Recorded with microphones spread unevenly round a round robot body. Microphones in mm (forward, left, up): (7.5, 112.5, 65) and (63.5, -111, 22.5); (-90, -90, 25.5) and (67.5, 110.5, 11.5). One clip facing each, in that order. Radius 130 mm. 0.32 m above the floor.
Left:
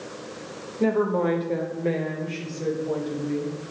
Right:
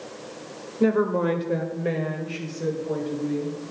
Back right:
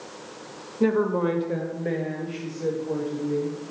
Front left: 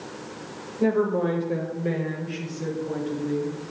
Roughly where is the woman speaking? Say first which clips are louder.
Right 1 dB, even; right.